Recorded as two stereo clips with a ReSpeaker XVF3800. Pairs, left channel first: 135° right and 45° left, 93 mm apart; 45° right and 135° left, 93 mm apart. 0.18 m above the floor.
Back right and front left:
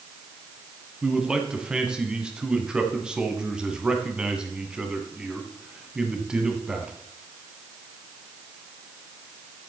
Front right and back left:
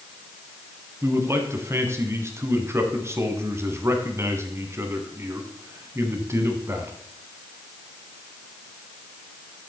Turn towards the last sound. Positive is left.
turn(degrees=115)